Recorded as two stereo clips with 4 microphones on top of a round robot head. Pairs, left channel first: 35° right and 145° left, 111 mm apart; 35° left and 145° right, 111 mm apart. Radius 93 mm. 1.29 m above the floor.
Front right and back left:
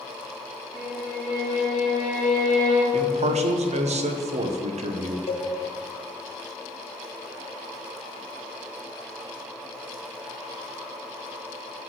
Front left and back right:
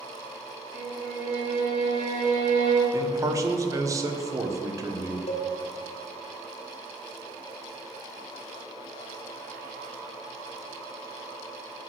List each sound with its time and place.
0.7 s a violin: 155° right, 2.5 m
2.9 s a man speaking: 155° left, 1.1 m
5.3 s a cowbell: 5° left, 1.2 m